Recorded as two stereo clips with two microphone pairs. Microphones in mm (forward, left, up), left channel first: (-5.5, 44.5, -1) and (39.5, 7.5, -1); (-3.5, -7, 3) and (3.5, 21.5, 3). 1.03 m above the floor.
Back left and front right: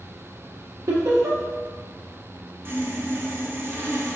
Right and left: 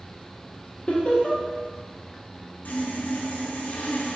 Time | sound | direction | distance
0.9 | laughter | 50° right | 0.6 m
2.6 | sawing | 85° right | 0.5 m